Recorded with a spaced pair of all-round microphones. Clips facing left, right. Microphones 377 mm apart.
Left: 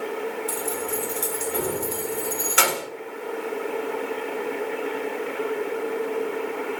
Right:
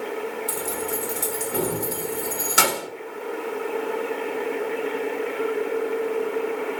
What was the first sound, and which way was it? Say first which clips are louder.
Keys jangling: even; 55° right (ahead or behind).